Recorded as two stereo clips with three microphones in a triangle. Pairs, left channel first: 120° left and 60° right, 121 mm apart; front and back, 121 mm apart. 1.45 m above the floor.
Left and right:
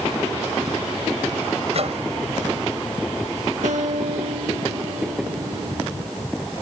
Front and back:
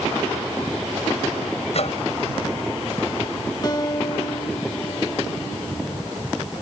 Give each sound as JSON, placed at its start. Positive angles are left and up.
{"t": 1.7, "sound": "a microwave", "azimuth_deg": -30}
{"t": 3.6, "sound": "a guitar", "azimuth_deg": -55}